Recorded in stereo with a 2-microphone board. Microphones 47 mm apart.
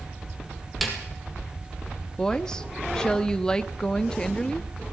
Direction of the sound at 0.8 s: Centre (ahead or behind).